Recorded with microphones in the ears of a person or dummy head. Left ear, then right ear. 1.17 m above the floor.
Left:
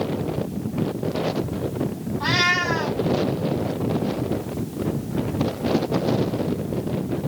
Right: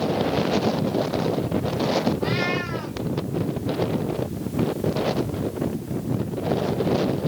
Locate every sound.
2.2 s a cat meowing: 50° left (ahead or behind), 4 m